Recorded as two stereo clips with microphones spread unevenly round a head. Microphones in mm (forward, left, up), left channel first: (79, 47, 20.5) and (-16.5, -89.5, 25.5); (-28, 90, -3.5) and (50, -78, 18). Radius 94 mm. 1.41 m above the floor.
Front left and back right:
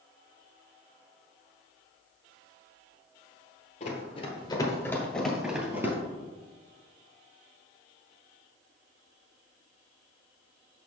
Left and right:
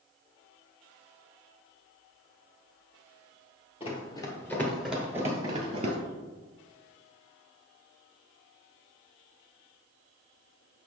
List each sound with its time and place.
3.8 s running footsteps: 65° left, 1.7 m; by 6.0 s 65° right, 1.7 m